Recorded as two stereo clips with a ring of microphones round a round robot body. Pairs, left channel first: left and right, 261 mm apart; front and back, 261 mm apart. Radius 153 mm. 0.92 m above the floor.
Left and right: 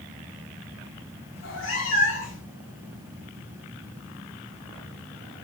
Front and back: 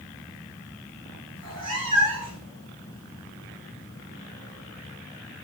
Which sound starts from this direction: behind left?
A cat meowing, at 1.4 s.